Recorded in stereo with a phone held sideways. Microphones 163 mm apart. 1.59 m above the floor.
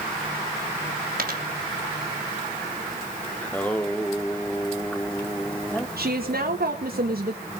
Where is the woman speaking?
65° right (ahead or behind), 2 m.